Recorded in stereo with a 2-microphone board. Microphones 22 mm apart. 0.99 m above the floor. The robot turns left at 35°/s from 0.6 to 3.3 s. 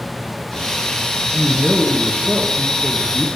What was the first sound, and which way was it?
A man speaking, 95° right.